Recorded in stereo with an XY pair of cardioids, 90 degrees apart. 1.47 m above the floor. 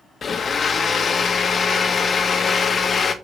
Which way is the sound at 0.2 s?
45° left.